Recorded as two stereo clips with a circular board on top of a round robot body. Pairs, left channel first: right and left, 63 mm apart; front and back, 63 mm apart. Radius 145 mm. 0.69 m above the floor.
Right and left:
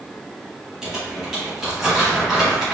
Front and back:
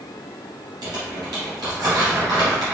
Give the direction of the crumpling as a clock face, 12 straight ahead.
6 o'clock.